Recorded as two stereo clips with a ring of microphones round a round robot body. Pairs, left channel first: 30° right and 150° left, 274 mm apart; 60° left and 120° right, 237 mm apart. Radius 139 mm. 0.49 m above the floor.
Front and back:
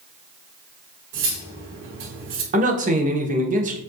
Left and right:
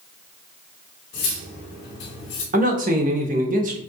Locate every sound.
1.1 s cutlery clinking: 110° left, 2 m
2.5 s a man speaking: 160° right, 0.9 m